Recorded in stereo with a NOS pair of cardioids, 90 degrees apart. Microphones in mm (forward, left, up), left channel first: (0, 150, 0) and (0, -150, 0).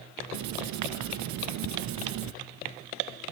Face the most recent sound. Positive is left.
turn(degrees=-65)